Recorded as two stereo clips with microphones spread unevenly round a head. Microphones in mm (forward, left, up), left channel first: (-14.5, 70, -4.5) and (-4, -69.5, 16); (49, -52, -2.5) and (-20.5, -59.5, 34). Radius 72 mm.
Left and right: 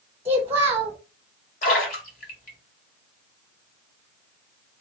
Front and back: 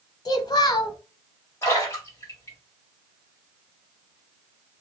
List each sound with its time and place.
0.2 s a child speaking: 10° right, 0.8 m
1.6 s a splash: 65° left, 1.7 m